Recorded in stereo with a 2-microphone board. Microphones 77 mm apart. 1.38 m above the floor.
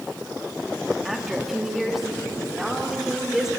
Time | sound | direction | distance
1.1 | a woman speaking | 5° right (ahead or behind) | 3 m